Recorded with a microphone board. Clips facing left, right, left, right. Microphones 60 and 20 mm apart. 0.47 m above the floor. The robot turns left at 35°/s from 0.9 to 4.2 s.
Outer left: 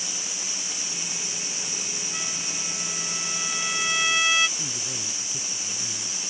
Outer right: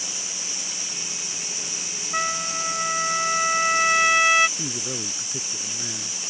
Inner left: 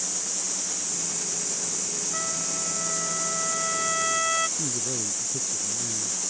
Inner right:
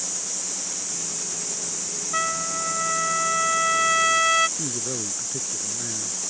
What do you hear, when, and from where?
2.1 s a trumpet: 70° right; by 4.5 s 145° right
4.6 s a man speaking: 40° right (ahead or behind)